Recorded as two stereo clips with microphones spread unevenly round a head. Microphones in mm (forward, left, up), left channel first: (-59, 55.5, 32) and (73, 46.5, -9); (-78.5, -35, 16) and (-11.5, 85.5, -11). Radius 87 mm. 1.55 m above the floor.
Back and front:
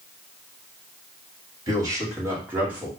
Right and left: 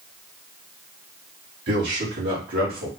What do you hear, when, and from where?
1.7 s a man speaking: 65° left, 2.5 m; by 2.9 s 80° left, 2 m